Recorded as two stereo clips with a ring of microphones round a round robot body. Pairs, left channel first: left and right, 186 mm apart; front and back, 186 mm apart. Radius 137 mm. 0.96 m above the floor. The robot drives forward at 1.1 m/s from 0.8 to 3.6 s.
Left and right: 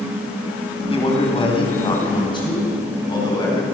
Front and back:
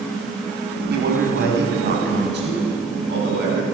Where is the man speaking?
150° left, 6.5 m; by 3.6 s 160° left, 9.5 m.